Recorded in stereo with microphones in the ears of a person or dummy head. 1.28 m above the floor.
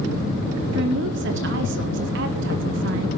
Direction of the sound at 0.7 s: 60° right (ahead or behind).